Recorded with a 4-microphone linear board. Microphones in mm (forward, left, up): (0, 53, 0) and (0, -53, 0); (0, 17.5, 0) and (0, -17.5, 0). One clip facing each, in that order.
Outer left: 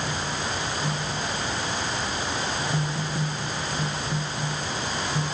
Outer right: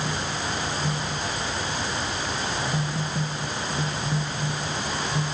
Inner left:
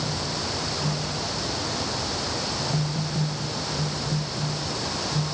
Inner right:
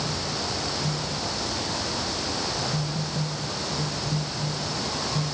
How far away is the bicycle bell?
No bicycle bell in this recording.